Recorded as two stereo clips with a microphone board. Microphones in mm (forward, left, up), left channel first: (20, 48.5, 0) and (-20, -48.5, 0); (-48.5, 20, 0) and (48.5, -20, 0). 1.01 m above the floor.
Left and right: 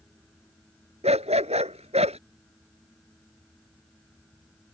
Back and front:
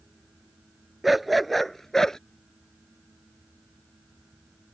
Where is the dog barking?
110° right; by 2.2 s 120° right.